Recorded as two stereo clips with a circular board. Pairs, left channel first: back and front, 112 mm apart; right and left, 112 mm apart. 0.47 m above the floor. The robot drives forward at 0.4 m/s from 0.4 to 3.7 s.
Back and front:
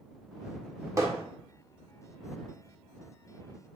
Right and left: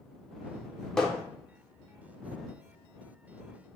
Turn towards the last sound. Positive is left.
turn(degrees=-175)